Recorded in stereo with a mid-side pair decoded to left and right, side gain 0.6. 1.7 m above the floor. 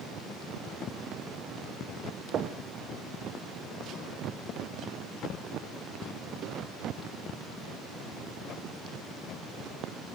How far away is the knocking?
About 1.1 m.